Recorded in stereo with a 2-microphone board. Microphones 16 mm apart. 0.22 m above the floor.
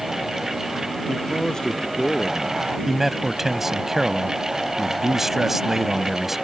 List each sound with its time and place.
1.1 s a man speaking: 65° left (ahead or behind); by 2.8 s 55° left (ahead or behind)
2.9 s a man speaking: 25° right (ahead or behind)